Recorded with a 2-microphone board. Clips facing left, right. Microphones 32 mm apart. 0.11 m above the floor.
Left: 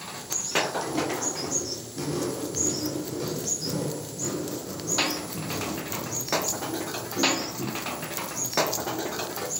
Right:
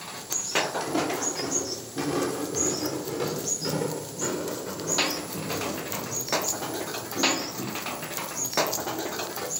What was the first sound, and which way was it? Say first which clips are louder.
Footsteps: right 1 dB; 85° right.